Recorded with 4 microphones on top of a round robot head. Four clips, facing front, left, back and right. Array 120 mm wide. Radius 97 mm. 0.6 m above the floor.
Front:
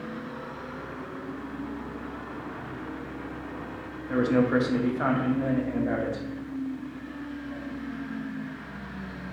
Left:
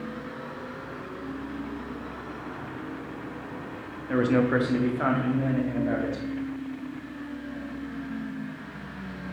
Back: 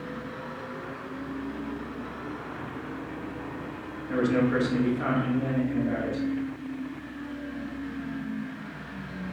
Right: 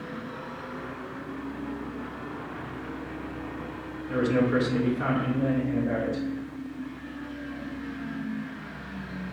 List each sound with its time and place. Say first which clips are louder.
4.1 s a man speaking: left 1 dB, front 1 dB; 80° left, 1.4 m; by 6.2 s 25° left, 2 m